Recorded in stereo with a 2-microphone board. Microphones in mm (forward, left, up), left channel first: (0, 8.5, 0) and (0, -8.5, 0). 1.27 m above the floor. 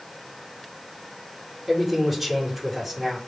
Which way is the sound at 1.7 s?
15° right (ahead or behind).